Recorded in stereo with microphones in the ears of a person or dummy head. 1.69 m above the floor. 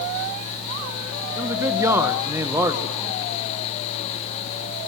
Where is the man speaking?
20° right (ahead or behind), 1.7 m.